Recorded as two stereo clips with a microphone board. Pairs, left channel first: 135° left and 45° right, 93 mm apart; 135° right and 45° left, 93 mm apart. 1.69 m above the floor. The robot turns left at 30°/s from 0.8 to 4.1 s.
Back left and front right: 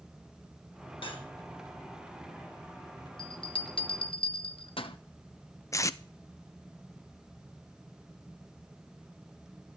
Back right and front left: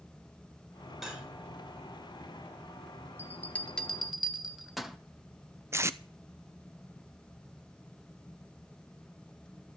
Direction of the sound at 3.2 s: 160° left.